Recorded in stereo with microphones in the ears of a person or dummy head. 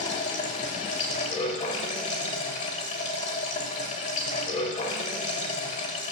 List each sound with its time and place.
0.0 s running water: 40° left (ahead or behind), 1.0 m